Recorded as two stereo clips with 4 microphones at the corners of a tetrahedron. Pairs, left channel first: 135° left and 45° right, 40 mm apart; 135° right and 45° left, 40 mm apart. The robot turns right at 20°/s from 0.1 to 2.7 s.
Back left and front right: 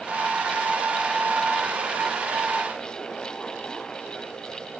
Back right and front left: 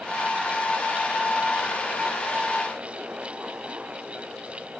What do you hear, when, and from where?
Only background noise.